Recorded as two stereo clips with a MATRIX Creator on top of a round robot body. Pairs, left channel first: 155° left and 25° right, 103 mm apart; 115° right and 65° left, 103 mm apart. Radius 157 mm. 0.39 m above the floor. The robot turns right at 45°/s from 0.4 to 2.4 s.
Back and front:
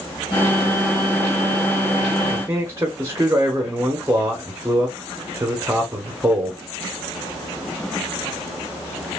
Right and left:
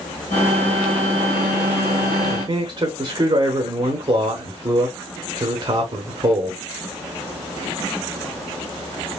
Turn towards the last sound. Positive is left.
turn(degrees=40)